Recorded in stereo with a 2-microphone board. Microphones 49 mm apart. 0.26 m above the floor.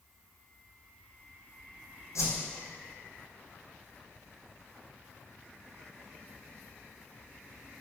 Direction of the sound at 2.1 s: 75° left (ahead or behind).